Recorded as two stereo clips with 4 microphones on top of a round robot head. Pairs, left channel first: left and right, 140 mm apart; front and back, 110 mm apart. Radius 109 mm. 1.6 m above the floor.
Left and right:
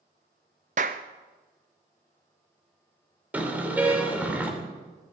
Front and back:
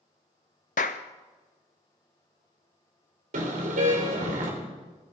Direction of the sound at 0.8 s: 40° right.